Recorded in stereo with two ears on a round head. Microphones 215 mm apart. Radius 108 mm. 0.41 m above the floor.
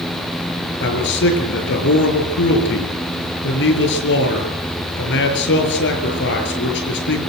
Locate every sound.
0.8 s a man speaking: 50° left (ahead or behind), 6 m